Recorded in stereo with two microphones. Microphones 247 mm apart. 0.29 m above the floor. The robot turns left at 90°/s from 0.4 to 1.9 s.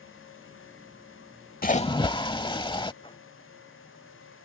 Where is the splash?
35° left (ahead or behind); by 2.9 s 20° left (ahead or behind).